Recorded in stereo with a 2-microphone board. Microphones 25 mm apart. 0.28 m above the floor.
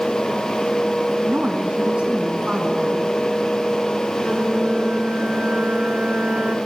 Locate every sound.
1.2 s a woman speaking: 60° right (ahead or behind), 2.0 m; by 3.1 s 45° right (ahead or behind), 3 m
4.2 s a flute: 50° right (ahead or behind), 1.8 m